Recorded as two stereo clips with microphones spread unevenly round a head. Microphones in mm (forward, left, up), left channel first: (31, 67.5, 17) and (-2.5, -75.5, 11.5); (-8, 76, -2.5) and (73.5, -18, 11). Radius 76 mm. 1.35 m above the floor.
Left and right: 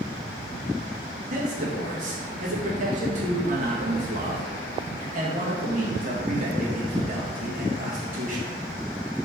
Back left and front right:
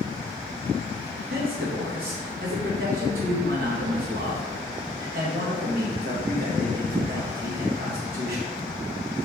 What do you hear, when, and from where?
1.3 s a man speaking: 65° right, 1.3 m